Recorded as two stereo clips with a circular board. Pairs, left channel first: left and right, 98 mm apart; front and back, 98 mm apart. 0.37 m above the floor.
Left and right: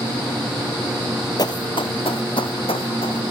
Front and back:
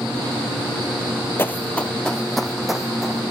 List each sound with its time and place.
1.4 s running footsteps: 60° left, 0.5 m; by 3.3 s 95° left, 1.5 m